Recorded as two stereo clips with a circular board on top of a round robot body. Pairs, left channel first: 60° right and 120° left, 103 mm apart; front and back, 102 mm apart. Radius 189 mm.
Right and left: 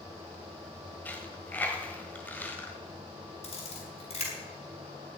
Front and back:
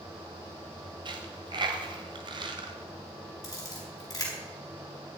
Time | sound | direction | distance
1.1 | a dropped coin | 135° right | 1.5 m
3.4 | a camera shutter | 55° right | 4 m